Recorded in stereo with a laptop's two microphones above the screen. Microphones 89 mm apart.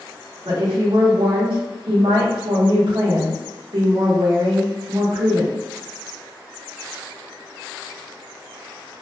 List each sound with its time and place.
0.5 s a woman speaking: 75° right (ahead or behind), 0.8 m